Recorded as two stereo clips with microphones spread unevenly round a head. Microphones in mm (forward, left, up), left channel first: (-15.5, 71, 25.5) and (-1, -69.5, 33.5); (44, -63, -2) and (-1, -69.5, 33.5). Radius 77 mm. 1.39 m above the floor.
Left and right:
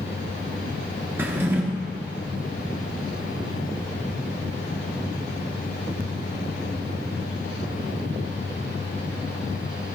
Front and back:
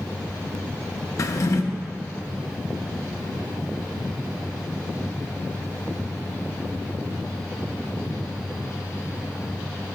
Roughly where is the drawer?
Ahead right.